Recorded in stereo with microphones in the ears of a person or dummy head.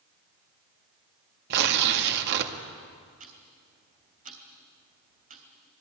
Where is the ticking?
40° right (ahead or behind), 3 m.